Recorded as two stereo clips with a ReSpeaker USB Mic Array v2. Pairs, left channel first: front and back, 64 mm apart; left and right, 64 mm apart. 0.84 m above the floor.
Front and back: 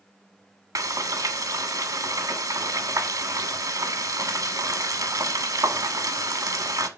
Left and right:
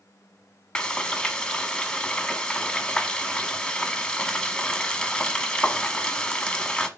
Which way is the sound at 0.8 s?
165° left.